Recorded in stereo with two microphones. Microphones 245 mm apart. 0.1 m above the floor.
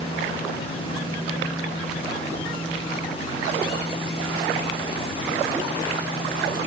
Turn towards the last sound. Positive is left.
No sound to turn to.